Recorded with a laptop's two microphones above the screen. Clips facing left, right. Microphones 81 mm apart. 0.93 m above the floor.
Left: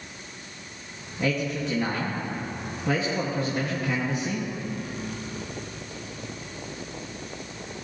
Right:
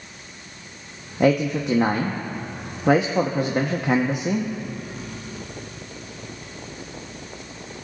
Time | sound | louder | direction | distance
1.2 | a man speaking | right 8 dB | 60° right (ahead or behind) | 1.2 m